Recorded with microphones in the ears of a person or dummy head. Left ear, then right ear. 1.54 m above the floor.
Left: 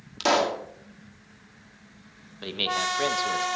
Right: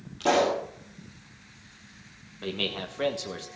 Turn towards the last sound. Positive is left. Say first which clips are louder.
# left 5 dB
turn(degrees=20)  # may be behind; listen again after turning